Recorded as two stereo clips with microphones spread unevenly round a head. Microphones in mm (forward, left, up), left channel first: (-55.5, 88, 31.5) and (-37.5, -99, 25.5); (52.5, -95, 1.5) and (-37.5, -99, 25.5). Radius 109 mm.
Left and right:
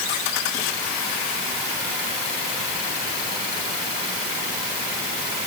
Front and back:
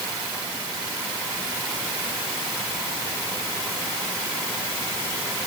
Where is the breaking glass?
No breaking glass in this recording.